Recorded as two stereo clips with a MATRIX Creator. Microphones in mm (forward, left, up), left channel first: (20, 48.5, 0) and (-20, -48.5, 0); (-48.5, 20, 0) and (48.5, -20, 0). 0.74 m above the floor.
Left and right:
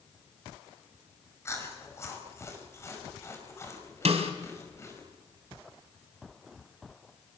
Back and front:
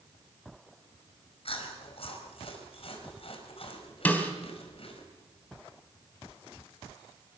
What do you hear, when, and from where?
1.4 s chewing: 130° left, 4.5 m
4.0 s a snare drum: 130° right, 3 m